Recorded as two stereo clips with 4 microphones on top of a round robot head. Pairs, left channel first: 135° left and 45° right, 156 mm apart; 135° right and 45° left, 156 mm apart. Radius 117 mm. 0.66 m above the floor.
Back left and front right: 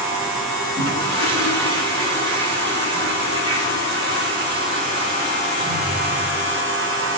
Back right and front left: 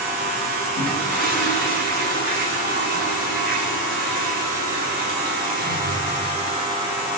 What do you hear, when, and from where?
0.8 s a toilet flushing: 15° left, 4 m